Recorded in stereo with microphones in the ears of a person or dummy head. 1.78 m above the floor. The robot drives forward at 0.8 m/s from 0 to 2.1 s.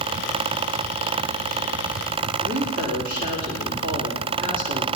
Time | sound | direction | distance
2.4 | a woman speaking | 55° right (ahead or behind) | 3 m